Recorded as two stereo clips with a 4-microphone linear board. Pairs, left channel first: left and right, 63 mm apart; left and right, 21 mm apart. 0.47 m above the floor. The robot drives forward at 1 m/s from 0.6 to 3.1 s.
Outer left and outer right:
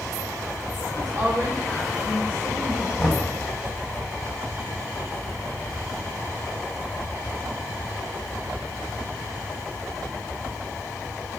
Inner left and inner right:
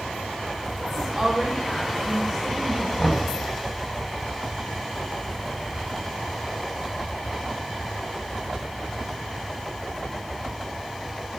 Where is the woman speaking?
50° right (ahead or behind), 1.6 m; by 2.9 s 30° right (ahead or behind), 2.5 m.